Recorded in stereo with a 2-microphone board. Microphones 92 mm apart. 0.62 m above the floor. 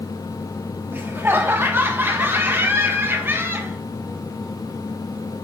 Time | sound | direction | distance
0.9 | laughter | 20° right (ahead or behind) | 1.3 m